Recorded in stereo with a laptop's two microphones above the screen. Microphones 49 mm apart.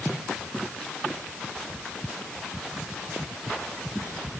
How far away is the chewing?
No chewing in this recording.